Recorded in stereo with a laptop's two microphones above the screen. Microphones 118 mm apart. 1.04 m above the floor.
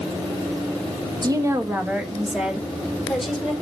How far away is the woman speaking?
About 1.1 m.